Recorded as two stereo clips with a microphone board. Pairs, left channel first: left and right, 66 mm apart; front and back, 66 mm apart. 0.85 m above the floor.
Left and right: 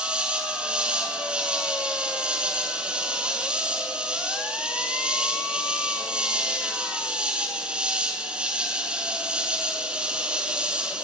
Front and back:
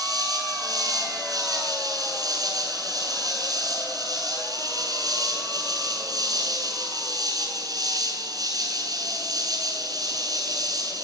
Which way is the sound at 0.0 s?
165° right.